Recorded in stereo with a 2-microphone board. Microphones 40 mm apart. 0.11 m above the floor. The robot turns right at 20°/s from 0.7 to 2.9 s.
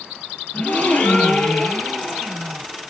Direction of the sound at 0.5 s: 130° left.